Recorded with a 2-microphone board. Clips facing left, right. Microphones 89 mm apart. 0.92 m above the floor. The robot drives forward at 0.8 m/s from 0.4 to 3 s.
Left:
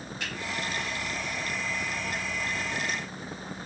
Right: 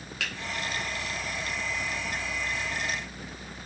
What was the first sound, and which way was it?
A finger snap, 75° right (ahead or behind).